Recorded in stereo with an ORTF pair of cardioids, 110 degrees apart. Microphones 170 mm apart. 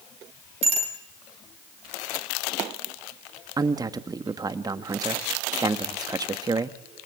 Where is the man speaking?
25° right, 1.9 m.